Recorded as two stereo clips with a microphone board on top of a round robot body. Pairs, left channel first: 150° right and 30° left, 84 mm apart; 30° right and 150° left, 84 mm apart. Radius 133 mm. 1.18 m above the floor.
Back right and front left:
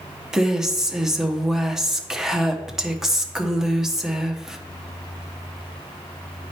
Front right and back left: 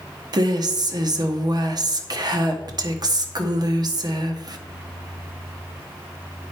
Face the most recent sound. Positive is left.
turn(degrees=115)